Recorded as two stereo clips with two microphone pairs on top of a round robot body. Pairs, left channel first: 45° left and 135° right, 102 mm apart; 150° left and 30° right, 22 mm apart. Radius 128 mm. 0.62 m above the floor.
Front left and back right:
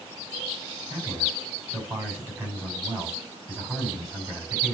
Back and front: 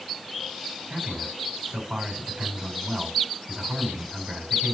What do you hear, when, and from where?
0.9 s a man speaking: 65° right, 7 m